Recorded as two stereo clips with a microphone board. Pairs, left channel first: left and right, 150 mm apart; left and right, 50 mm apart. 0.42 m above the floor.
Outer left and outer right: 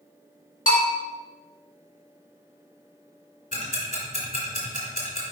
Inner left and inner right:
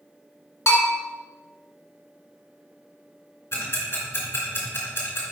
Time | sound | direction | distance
0.7 | a bell | 65° left (ahead or behind) | 2 m
3.5 | ticking | 65° left (ahead or behind) | 2.5 m